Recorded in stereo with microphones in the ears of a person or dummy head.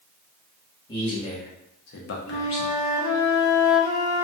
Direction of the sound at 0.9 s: 25° left (ahead or behind).